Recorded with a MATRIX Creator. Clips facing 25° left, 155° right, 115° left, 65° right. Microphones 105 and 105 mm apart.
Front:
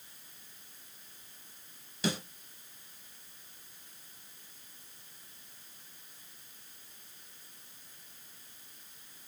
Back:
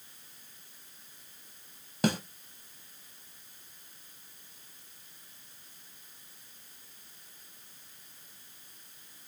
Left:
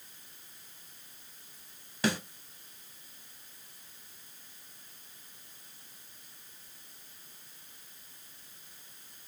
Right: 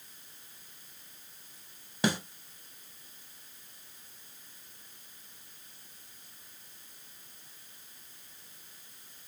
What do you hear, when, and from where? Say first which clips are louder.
2.0 s a snare drum: back 5 dB, right 1 dB; 130° right, 0.8 m